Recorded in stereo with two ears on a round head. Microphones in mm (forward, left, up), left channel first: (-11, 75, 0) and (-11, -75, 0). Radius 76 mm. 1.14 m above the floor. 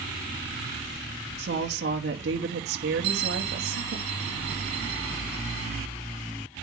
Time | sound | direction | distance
1.4 | a woman speaking | 70° right (ahead or behind) | 2.5 m
3.0 | a bell | 60° right (ahead or behind) | 2 m